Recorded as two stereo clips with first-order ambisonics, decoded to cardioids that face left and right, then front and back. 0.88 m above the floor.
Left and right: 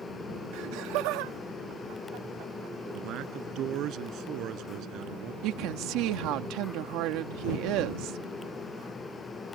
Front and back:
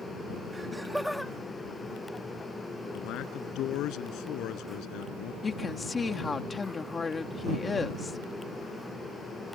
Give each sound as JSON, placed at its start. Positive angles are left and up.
{"t": 0.5, "sound": "laughter", "azimuth_deg": -100}
{"t": 2.9, "sound": "a man speaking", "azimuth_deg": -45}
{"t": 5.4, "sound": "a woman speaking", "azimuth_deg": -70}